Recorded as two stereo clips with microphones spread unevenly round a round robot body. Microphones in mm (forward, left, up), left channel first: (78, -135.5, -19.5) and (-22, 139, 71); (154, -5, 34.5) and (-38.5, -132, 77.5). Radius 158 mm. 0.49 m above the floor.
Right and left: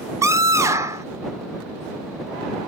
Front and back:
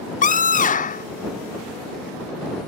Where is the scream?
15° left.